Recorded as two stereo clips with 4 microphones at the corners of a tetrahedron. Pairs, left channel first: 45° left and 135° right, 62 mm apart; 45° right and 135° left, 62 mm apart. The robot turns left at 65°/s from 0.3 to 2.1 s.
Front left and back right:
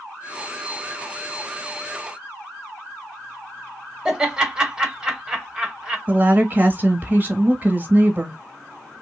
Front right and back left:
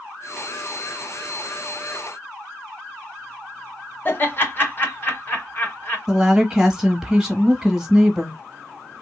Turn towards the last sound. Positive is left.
turn(degrees=-155)